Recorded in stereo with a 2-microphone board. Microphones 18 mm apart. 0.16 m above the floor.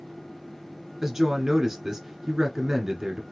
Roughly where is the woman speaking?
Right.